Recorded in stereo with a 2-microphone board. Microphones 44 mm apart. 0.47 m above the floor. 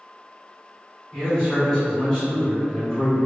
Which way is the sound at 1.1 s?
10° left (ahead or behind).